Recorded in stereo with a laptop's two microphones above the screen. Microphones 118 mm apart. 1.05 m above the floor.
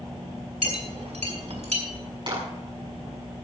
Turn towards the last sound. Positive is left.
turn(degrees=-50)  # may be behind; listen again after turning